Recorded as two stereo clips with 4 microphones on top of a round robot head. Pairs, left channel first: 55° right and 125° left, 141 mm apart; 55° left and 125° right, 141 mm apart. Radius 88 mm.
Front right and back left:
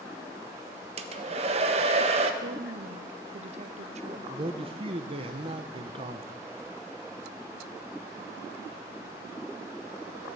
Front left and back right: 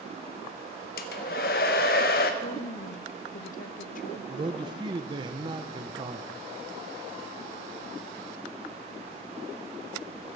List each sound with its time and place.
1.0 s a hair dryer: 75° left, 0.9 m
2.4 s a woman speaking: 85° left, 0.9 m
4.3 s a man speaking: 175° left, 0.9 m